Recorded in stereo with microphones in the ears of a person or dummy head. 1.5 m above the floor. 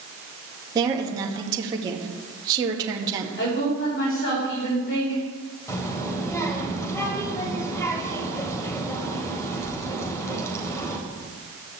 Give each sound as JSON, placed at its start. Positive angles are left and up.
{"t": 0.8, "sound": "a woman speaking", "side_deg": -15, "distance_m": 2.0}
{"t": 3.4, "sound": "a woman speaking", "side_deg": 80, "distance_m": 5.0}
{"t": 5.7, "sound": "a child speaking", "side_deg": 25, "distance_m": 4.0}